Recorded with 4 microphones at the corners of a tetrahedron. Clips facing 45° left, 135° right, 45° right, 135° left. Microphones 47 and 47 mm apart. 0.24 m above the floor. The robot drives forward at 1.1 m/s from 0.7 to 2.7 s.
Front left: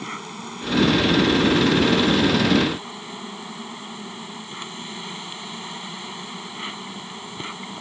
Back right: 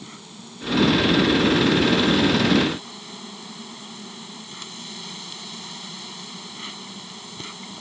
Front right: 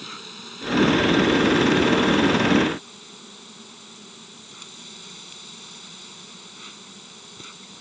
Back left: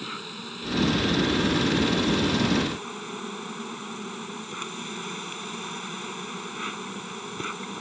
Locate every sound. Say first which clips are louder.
0.0 s an insect: front left 9 dB, back left 3 dB; 60° left; by 7.8 s 105° left